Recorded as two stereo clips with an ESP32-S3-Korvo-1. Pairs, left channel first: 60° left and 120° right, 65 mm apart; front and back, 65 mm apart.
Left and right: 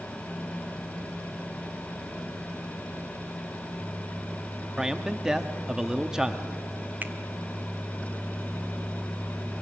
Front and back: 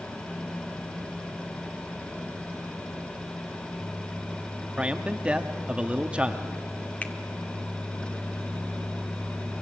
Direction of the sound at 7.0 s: 65° right.